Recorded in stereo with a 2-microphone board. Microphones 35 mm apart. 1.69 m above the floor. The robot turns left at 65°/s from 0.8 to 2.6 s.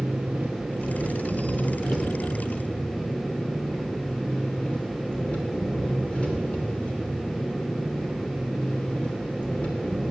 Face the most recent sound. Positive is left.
turn(degrees=145)